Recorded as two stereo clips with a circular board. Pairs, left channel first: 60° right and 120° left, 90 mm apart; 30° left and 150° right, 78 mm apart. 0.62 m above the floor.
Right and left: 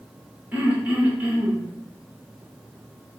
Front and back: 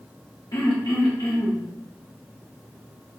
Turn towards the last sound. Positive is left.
turn(degrees=50)